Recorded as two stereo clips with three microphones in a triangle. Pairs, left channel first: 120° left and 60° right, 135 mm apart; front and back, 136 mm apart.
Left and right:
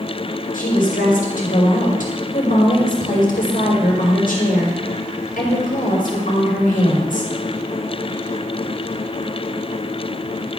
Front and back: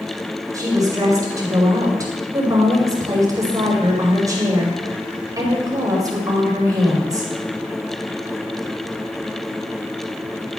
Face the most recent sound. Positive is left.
turn(degrees=115)